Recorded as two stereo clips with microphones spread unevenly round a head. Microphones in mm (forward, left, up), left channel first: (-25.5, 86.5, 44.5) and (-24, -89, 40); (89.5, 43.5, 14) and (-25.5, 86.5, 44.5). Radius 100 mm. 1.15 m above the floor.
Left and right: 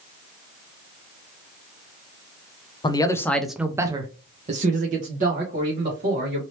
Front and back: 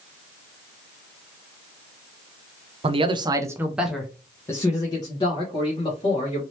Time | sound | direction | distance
2.8 | a man speaking | 135° left | 0.7 m